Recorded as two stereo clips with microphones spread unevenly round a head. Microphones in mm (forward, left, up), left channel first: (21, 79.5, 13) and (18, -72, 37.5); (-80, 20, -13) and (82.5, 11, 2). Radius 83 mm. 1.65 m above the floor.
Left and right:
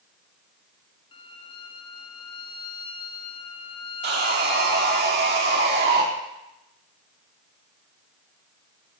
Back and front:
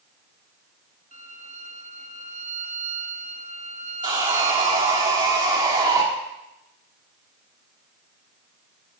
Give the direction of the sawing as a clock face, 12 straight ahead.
2 o'clock.